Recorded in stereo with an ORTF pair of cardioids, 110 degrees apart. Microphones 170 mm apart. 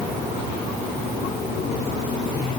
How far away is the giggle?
No giggle in this recording.